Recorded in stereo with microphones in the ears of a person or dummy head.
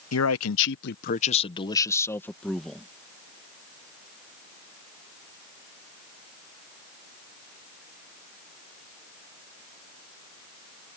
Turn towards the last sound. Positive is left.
turn(degrees=0)  # may be behind; listen again after turning